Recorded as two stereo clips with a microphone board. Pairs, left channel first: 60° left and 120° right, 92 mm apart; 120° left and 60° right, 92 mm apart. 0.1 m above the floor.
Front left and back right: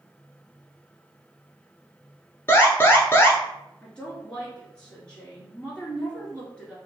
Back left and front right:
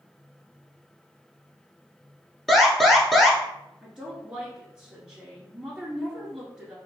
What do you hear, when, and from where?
2.5 s an alarm: 35° left, 1.1 m
3.8 s a woman speaking: straight ahead, 1.3 m